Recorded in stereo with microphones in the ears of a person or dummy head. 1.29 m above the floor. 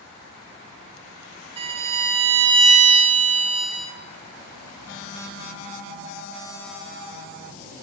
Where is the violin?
25° right (ahead or behind), 1.0 m.